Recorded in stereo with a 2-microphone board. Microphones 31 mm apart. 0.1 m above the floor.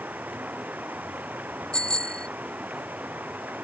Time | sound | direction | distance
0.0 | running water | 70° right (ahead or behind) | ?
1.7 | a bicycle bell | 25° left (ahead or behind) | ?